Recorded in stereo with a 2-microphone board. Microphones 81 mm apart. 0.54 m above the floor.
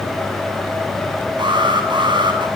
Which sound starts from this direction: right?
An alarm, at 1.4 s.